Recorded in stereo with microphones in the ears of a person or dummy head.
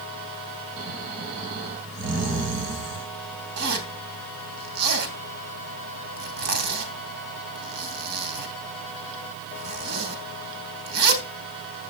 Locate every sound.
0.8 s snoring: 50° right (ahead or behind), 8 m
3.6 s a zipper: 55° right (ahead or behind), 3.5 m